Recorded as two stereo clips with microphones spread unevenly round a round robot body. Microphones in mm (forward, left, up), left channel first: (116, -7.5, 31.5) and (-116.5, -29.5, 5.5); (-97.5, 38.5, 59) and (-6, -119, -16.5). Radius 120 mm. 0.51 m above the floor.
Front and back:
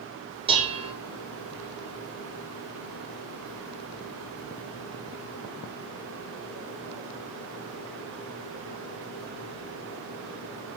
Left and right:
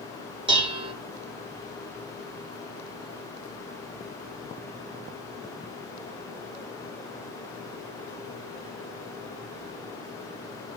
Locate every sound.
0.5 s dishes clattering: 110° right, 1.4 m